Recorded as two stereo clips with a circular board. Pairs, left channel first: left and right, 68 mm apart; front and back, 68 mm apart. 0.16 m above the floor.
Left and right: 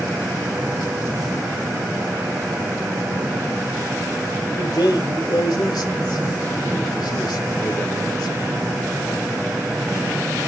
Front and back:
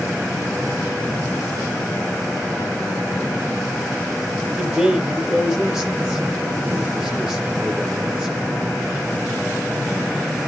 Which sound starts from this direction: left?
A man speaking, at 4.6 s.